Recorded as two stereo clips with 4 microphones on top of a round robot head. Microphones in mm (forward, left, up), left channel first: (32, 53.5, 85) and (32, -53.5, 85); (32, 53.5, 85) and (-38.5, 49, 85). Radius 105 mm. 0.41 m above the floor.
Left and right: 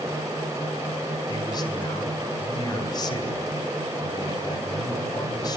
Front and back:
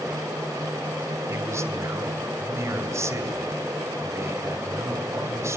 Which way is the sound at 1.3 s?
140° left.